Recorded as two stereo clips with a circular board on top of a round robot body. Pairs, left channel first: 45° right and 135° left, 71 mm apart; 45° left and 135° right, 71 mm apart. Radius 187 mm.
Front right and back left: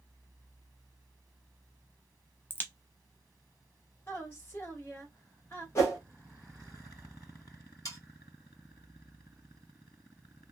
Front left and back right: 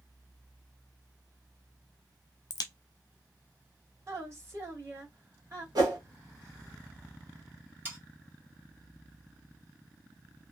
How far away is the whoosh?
About 1.0 m.